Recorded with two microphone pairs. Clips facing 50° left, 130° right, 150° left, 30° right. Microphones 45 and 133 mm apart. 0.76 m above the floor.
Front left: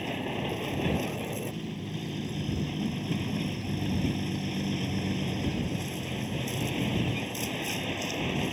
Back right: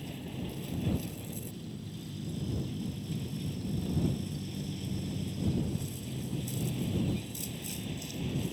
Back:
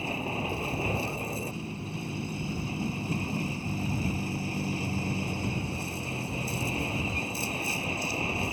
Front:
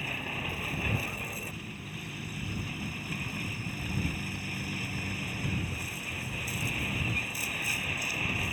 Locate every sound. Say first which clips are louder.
0.0 s a vehicle: front left 8 dB, back 6 dB; 85° left